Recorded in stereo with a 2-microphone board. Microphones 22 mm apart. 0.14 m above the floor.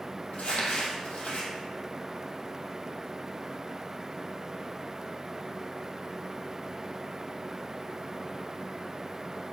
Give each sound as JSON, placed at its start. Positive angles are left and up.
{"t": 0.3, "sound": "crumpling", "side_deg": 75, "distance_m": 2.0}